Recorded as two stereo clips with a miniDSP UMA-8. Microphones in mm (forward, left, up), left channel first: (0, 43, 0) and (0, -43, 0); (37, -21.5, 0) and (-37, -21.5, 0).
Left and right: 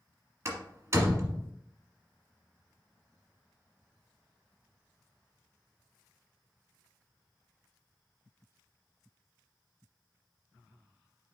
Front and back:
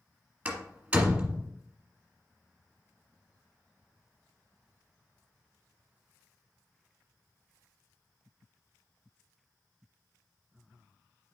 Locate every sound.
0.5 s a door slam: 120° right, 1.5 m